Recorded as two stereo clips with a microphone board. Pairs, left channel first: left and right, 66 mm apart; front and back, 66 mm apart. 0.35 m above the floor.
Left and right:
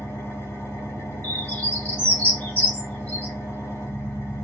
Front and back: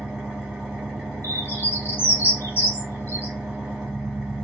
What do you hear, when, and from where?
0.0 s an engine running: 105° left, 1.4 m
1.2 s a bird: 35° left, 1.3 m